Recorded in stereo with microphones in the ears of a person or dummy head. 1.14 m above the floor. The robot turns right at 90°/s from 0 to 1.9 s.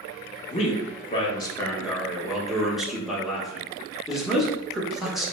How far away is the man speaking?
About 0.7 m.